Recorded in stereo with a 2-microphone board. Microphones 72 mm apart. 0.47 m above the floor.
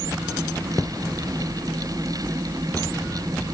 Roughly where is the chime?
No chime in this recording.